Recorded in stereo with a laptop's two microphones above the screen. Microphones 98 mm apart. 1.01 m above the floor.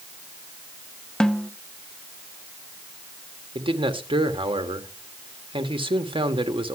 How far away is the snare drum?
About 0.7 m.